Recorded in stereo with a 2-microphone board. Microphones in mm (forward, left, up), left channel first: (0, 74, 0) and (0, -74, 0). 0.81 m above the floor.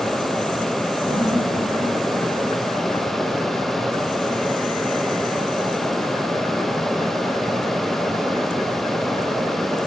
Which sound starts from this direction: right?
Laughter, at 1.1 s.